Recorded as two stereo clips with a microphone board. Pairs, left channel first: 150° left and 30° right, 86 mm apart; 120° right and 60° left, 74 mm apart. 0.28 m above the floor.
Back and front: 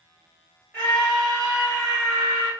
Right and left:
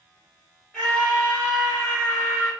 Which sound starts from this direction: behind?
A scream, at 0.7 s.